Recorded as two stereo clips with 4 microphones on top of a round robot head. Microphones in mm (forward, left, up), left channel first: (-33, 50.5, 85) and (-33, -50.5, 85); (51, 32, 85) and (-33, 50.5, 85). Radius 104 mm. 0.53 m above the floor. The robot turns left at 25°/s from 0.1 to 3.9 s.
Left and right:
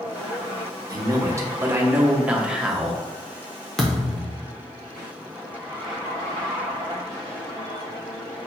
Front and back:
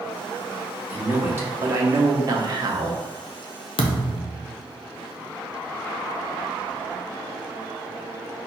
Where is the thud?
5° left, 0.6 m.